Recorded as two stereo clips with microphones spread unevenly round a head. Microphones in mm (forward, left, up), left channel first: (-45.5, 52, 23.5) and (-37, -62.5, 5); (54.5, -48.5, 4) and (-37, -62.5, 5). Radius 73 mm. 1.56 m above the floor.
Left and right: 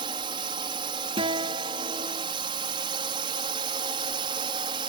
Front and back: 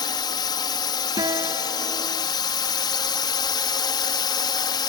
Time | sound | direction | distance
0.0 | a drone | 30° right | ?
1.2 | a guitar | 130° right | ?